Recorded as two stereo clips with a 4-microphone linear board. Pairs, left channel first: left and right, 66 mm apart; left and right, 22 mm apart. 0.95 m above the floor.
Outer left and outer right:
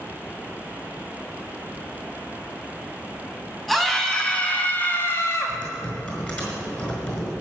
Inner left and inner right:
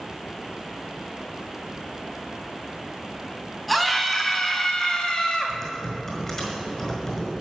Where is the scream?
5° left (ahead or behind), 2.5 m; by 5.6 s 50° left (ahead or behind), 1.8 m.